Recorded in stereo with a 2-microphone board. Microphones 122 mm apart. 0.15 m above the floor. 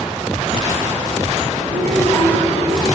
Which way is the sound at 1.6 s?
65° right (ahead or behind).